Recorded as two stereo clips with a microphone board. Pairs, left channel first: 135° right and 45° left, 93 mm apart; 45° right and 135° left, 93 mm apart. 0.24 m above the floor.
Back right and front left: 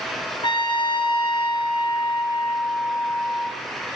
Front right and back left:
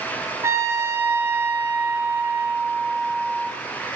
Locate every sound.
0.4 s a trumpet: 165° right, 1.7 m